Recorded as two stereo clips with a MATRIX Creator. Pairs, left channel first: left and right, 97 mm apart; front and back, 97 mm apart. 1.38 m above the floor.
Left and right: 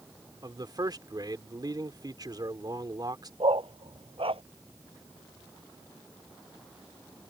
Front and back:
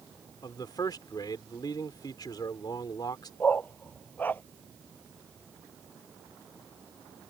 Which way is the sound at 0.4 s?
45° right.